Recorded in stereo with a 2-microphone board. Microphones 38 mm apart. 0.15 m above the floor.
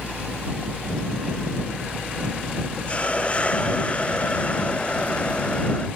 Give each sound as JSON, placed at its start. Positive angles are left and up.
{"t": 2.9, "sound": "a hiss", "side_deg": 35}